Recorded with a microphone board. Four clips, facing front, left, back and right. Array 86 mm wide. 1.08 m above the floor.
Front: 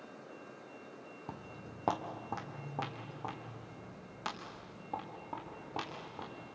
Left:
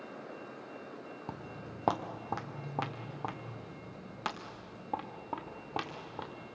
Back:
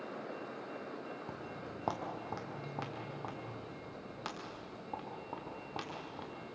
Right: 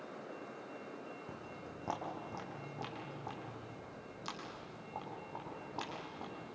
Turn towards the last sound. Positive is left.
turn(degrees=90)